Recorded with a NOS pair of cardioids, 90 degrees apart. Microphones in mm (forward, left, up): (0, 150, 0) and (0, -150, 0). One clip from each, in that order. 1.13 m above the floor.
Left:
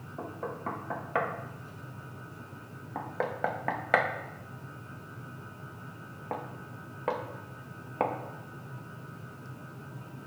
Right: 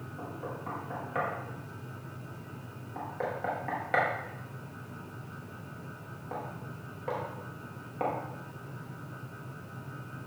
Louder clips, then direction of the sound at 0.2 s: Left 3 dB; 50° left.